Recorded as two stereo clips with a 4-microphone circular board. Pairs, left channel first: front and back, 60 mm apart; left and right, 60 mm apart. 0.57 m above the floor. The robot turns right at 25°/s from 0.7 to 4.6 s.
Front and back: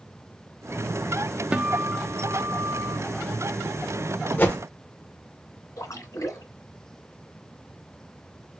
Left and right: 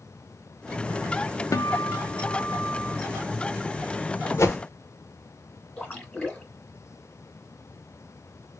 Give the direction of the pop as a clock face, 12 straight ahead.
I don't hear a pop.